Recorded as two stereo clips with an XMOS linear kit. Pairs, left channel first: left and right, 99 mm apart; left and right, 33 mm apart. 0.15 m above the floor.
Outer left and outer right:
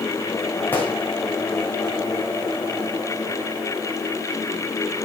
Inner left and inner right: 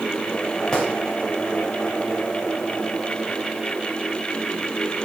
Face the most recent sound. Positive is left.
turn(degrees=20)  # may be behind; listen again after turning